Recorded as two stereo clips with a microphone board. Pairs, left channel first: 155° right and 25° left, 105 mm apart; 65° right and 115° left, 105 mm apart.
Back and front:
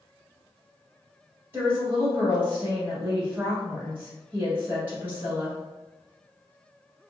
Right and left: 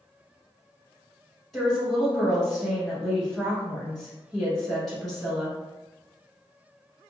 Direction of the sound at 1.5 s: 20° left.